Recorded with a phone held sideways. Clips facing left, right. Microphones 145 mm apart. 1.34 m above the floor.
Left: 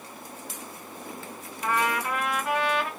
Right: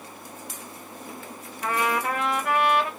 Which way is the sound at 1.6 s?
65° right (ahead or behind).